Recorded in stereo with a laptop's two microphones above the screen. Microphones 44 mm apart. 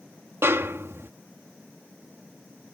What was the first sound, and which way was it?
A snare drum, 70° right (ahead or behind).